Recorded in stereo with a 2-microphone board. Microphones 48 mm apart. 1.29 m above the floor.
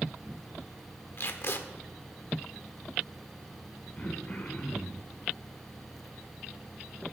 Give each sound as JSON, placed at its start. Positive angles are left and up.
{"t": 1.2, "sound": "tape being pulled", "side_deg": 55, "distance_m": 1.4}
{"t": 4.0, "sound": "throat clearing", "side_deg": 35, "distance_m": 3.5}